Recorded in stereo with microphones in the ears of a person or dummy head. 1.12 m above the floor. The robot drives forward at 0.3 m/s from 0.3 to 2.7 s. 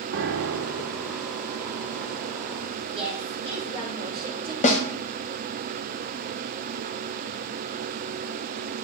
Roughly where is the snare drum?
Left.